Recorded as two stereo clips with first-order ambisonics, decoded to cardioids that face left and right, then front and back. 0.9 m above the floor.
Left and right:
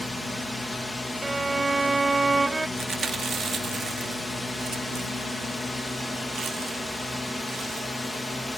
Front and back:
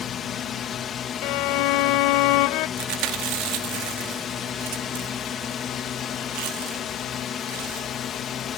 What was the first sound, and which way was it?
A drone, 15° left.